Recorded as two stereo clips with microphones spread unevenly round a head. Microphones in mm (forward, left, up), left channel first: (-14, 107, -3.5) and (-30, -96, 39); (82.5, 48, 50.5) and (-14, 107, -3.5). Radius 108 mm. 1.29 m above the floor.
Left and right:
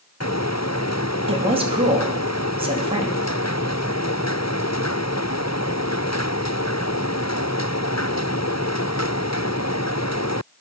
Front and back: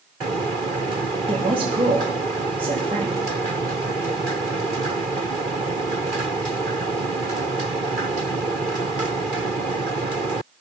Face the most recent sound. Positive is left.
turn(degrees=-160)